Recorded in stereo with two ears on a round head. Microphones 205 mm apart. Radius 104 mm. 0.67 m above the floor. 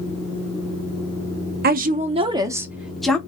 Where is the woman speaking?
40° right (ahead or behind), 0.7 m; by 3.2 s 5° left (ahead or behind), 0.9 m.